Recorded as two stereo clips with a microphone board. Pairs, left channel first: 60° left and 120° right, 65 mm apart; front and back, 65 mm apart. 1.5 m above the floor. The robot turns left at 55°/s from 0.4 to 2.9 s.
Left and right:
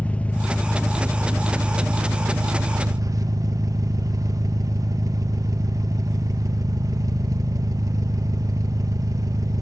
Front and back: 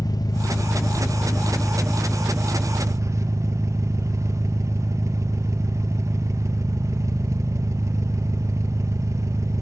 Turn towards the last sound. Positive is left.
turn(degrees=-145)